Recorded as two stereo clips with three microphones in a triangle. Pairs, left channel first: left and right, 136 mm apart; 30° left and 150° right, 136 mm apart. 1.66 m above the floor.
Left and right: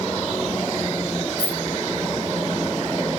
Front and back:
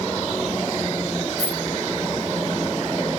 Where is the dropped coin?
35° right, 1.2 m.